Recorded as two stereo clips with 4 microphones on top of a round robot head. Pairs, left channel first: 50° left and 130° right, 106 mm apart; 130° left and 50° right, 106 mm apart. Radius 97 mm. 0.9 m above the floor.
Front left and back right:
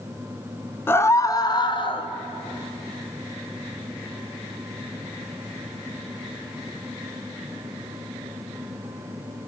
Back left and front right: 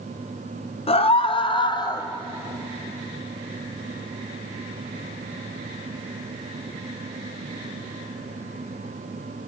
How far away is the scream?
About 1.5 m.